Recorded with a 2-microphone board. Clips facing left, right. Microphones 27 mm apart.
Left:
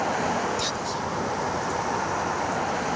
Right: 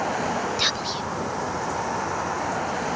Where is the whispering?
40° right (ahead or behind).